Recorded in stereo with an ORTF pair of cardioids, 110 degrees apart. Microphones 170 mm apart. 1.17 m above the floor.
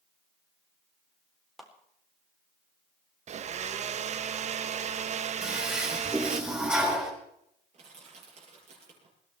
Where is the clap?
Straight ahead, 3.5 m.